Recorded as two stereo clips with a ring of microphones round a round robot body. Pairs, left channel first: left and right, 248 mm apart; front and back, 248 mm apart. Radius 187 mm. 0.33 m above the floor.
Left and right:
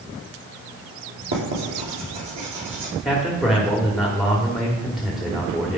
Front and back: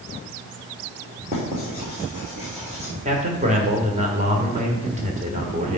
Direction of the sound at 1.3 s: 110° right.